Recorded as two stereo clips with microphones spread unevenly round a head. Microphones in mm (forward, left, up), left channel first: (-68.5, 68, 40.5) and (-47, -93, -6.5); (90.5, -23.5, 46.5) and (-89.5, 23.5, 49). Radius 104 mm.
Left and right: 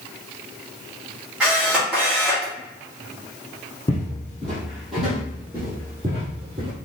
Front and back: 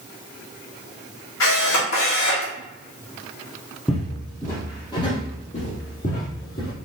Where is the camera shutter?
10° left, 1.6 m.